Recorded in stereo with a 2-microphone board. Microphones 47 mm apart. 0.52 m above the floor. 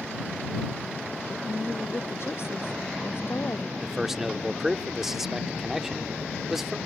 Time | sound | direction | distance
1.3 | a woman speaking | 60° left (ahead or behind) | ?
3.8 | a man speaking | 10° right (ahead or behind) | ?